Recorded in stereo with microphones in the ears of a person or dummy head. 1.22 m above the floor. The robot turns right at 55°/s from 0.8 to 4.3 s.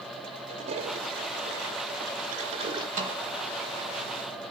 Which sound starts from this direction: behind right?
A toilet flushing, at 0.5 s.